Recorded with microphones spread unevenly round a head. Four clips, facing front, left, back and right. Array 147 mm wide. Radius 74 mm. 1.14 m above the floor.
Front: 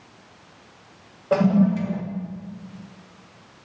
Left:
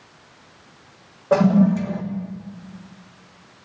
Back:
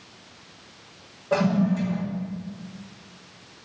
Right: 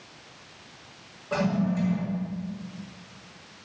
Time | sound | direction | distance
1.3 | a toilet flushing | 55° left | 1.1 m